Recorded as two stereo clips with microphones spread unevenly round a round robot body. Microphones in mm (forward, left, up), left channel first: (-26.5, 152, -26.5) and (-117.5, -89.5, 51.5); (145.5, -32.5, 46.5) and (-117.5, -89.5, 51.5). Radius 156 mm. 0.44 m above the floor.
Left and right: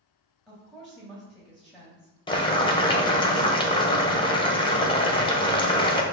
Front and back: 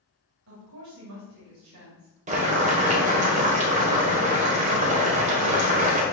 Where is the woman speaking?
150° left, 2 m.